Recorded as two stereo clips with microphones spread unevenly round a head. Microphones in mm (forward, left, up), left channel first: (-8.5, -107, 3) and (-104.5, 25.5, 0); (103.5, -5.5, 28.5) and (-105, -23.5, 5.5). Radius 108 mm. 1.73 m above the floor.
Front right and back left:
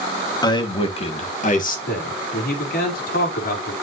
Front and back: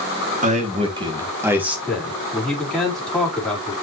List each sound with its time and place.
0.4 s a man speaking: 120° right, 2.5 m; by 1.8 s 90° right, 3 m
1.9 s a man speaking: 80° right, 5 m